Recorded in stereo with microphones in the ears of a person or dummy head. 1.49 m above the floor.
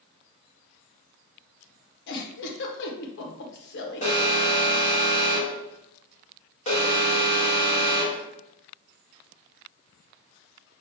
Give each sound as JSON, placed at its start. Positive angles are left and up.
{"t": 2.1, "sound": "a giggle", "side_deg": 70, "distance_m": 1.0}
{"t": 4.0, "sound": "an alarm", "side_deg": 35, "distance_m": 2.0}